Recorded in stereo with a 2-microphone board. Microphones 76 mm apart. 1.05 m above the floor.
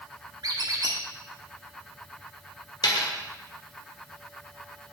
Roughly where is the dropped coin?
Left.